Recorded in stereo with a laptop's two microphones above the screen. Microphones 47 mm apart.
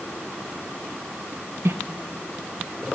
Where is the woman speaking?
70° right (ahead or behind), 0.6 m.